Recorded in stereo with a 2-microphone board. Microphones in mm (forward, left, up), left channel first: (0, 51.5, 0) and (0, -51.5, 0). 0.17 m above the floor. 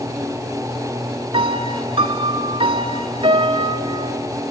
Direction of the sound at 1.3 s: 60° right (ahead or behind).